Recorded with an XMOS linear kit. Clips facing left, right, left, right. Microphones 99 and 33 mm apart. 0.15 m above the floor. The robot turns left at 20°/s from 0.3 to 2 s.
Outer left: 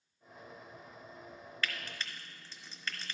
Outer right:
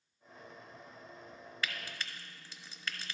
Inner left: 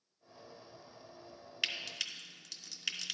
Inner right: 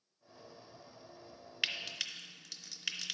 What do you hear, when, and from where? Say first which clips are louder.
1.6 s frying: outer left 1 dB, even; 15° right (ahead or behind), 0.9 m; by 3.1 s 10° right (ahead or behind), 0.9 m